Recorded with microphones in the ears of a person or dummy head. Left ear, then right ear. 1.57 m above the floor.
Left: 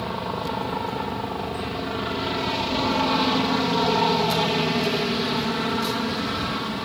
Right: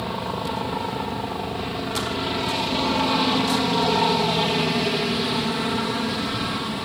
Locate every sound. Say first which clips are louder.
0.0 s a helicopter: even; 10° left (ahead or behind)